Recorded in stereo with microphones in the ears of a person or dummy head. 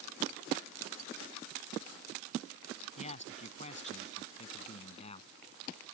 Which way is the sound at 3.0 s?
40° left (ahead or behind).